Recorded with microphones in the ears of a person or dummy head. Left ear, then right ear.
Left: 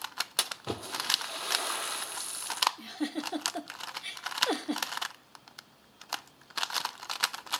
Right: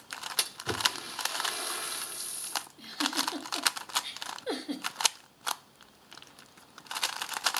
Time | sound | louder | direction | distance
0.4 | a splash | right 6 dB | 30° left (ahead or behind) | 0.9 m
2.8 | a giggle | right 4 dB | 40° left (ahead or behind) | 1.0 m